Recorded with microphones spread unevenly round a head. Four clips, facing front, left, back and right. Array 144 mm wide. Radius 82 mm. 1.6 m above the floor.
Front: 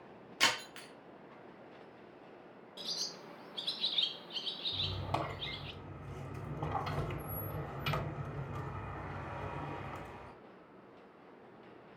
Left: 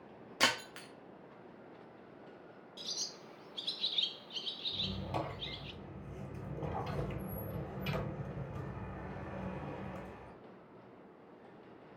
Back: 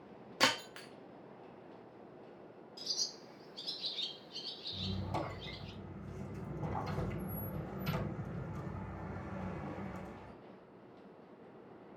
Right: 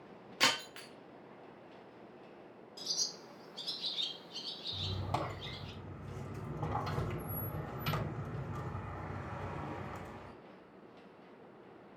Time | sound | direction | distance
0.4 | breaking glass | 155° left | 1.7 m
2.8 | a bird | 20° right | 0.9 m
4.7 | a squeak | 35° right | 4 m